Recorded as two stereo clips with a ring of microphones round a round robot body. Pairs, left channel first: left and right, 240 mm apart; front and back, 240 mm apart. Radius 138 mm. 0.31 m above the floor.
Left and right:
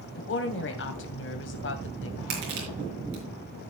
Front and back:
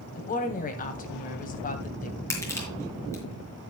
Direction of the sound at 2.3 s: 80° right.